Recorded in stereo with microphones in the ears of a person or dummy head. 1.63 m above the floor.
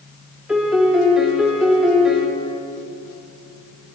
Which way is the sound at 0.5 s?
5° right (ahead or behind).